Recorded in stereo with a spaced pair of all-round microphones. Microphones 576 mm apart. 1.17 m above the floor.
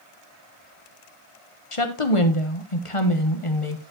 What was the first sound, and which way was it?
A woman speaking, 65° left (ahead or behind).